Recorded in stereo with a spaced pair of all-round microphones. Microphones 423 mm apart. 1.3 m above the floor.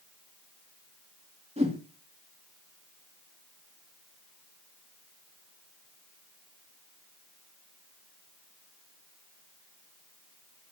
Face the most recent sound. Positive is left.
turn(degrees=-15)  # may be behind; listen again after turning